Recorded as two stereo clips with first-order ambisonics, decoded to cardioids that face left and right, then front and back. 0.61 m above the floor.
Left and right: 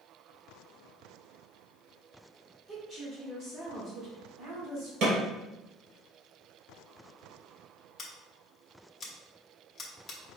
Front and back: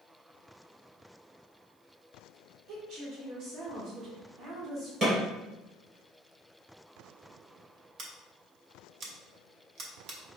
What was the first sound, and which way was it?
A woman speaking, 165° right.